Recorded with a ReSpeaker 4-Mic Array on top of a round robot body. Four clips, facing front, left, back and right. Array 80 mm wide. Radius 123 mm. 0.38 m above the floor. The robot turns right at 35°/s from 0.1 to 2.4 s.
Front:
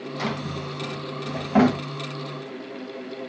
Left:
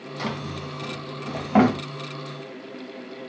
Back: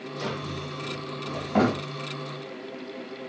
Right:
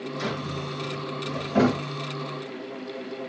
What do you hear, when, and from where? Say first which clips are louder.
0.2 s a drawer: left 2 dB, front 3 dB; 35° left, 2.5 m; by 1.8 s 90° left, 2.5 m